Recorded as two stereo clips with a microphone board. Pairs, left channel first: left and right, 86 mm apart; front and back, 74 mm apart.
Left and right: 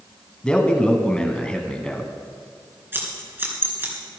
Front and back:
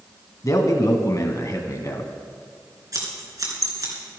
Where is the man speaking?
15° left, 1.6 m.